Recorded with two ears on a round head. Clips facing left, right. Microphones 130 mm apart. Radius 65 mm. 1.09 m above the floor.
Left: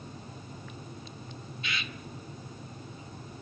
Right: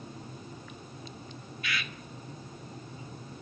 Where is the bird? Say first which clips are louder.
Right 2 dB; 20° left (ahead or behind), 1.4 m.